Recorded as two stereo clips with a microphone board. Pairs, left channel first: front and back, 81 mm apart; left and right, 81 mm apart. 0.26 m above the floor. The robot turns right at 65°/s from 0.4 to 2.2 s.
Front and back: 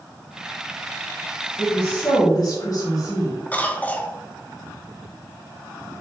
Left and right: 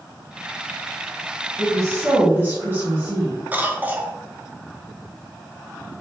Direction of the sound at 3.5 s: 45° right.